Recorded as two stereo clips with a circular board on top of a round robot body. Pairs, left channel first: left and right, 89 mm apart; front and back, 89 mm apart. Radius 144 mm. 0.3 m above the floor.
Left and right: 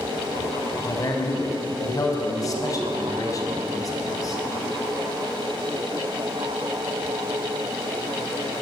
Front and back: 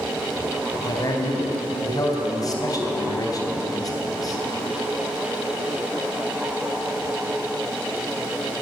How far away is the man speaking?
About 4 m.